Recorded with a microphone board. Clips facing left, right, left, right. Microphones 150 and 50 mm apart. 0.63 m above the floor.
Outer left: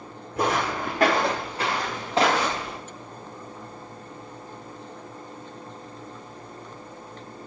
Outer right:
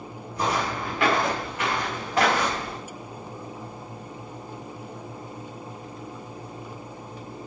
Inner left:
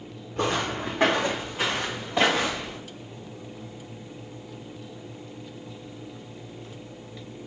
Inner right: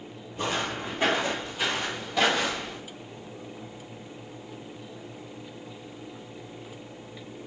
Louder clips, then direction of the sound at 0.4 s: Outer left 2 dB, inner left 3 dB; 55° left (ahead or behind).